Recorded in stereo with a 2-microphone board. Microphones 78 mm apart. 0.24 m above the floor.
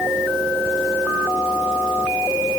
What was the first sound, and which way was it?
Only background noise.